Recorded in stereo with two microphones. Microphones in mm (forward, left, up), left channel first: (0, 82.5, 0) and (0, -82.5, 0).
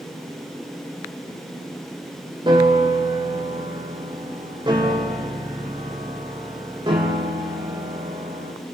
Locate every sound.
2.5 s a piano: 30° right (ahead or behind), 4 m